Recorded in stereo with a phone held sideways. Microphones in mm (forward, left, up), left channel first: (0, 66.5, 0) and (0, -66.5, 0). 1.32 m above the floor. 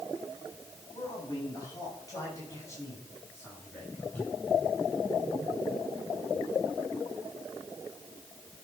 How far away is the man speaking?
About 7.5 m.